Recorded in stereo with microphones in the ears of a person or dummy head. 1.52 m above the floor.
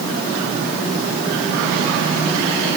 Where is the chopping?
No chopping in this recording.